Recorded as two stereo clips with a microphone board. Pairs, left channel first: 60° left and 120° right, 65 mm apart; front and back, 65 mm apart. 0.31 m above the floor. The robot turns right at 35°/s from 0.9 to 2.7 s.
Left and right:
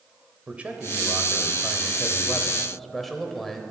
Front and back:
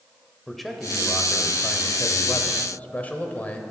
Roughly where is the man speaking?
Right.